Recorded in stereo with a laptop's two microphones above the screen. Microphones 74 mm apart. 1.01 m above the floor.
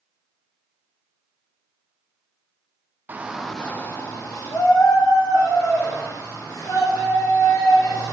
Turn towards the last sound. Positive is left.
turn(degrees=80)